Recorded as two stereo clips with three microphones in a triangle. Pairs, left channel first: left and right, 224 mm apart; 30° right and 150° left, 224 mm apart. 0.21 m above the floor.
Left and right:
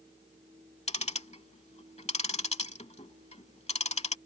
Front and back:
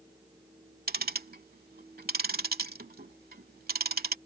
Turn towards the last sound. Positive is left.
turn(degrees=135)